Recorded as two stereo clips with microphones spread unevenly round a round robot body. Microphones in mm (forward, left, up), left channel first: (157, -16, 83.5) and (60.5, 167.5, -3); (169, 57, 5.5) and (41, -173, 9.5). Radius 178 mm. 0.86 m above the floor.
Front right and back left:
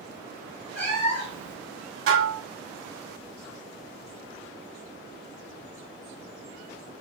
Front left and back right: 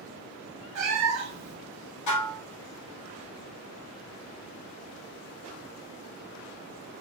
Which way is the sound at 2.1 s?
105° left.